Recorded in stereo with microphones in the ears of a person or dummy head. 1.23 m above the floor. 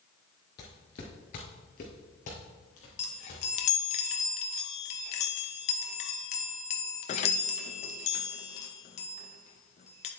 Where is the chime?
35° left (ahead or behind), 0.7 m.